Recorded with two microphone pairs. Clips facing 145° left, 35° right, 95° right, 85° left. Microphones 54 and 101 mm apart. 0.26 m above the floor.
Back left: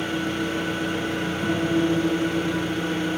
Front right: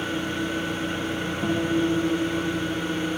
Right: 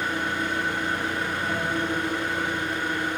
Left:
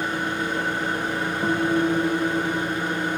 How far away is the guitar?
About 5.5 m.